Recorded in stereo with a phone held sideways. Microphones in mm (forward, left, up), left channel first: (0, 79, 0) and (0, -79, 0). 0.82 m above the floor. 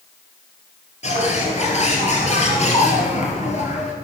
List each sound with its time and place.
1.0 s a bird: 45° left (ahead or behind), 3 m